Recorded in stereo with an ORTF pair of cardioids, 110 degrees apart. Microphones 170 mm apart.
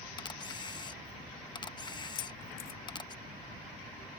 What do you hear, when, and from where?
0.2 s a camera shutter: 30° left
2.1 s keys jangling: 70° left